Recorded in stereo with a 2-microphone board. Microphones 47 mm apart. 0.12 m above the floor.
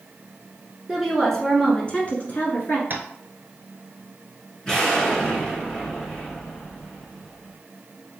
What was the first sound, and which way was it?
A woman speaking, 5° right (ahead or behind).